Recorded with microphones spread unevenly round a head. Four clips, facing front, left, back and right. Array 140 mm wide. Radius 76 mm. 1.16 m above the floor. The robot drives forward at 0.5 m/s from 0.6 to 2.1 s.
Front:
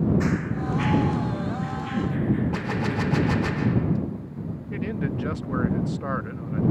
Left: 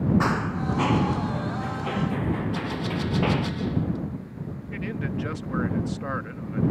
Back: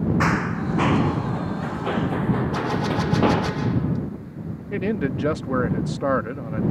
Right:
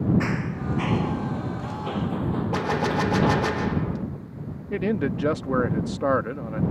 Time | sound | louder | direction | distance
0.2 | running footsteps | left 3 dB, back 3 dB | 150° left | ?
2.5 | a gunshot | right 5 dB, back 4 dB | 105° right | ?
4.7 | a man speaking | right 7 dB, back 5 dB | 135° right | ?